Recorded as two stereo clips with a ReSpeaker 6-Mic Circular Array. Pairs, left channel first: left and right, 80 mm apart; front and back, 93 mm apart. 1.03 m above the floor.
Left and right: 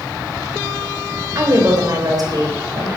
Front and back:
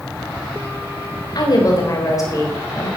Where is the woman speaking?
45° right, 3.5 m; by 2.9 s 55° right, 4.5 m.